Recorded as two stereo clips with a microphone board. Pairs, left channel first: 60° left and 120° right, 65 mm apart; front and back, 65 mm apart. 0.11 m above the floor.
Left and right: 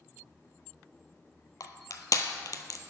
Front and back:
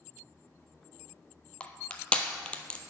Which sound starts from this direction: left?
Crushing, at 1.6 s.